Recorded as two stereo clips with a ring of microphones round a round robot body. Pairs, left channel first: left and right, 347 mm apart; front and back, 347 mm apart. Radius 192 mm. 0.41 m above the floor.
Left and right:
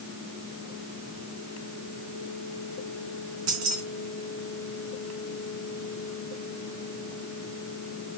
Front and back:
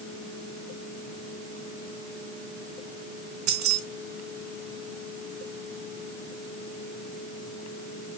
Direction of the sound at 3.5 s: 140° right.